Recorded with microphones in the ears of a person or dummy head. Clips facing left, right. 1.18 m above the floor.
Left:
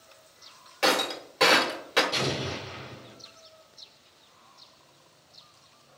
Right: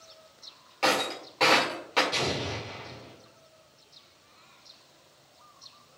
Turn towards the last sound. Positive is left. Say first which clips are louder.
# left 1 dB
turn(degrees=-10)  # may be behind; listen again after turning